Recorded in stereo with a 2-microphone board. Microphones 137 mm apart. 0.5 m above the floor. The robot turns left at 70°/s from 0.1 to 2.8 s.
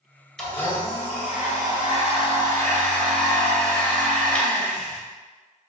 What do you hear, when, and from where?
0.4 s a blender: 175° left, 2 m; by 5.0 s 5° left, 2 m